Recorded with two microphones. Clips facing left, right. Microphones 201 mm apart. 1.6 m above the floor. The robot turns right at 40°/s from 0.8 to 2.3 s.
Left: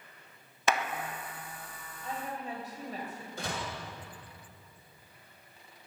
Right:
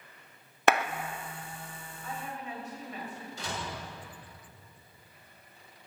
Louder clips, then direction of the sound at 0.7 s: Right 5 dB; 60° right (ahead or behind).